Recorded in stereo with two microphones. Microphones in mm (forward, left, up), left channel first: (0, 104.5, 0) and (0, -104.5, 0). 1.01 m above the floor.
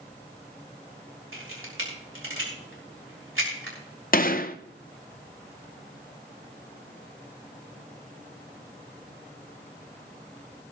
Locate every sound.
1.3 s a camera shutter: 80° right, 4.5 m
4.1 s a gunshot: 45° left (ahead or behind), 0.7 m